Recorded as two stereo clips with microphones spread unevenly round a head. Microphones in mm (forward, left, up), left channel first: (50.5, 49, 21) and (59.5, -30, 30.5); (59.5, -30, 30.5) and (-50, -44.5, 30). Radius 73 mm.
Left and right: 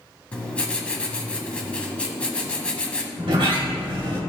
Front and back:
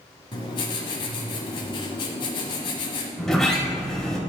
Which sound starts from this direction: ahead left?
Writing, at 0.3 s.